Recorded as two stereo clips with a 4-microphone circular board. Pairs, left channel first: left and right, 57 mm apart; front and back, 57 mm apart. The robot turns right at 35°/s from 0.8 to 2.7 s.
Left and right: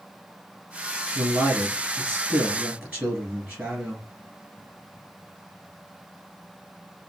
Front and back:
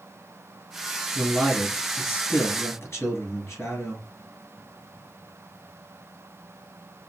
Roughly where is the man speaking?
Right.